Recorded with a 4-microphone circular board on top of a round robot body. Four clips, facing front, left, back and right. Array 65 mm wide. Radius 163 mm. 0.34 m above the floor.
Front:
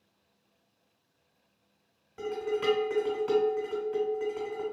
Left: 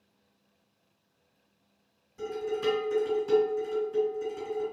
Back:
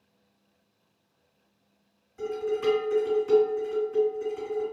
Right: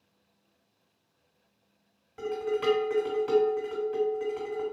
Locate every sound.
2.2 s dishes clattering: 50° right, 1.7 m